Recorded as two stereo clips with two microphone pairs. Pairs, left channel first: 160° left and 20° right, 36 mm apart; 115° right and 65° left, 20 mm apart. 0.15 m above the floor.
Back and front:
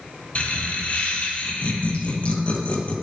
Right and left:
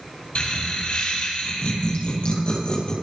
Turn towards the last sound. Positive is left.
turn(degrees=-145)